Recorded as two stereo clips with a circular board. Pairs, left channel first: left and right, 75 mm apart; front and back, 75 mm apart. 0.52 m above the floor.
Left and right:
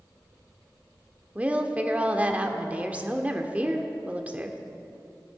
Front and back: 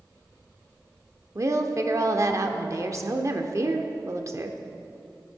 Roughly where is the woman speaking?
Behind right.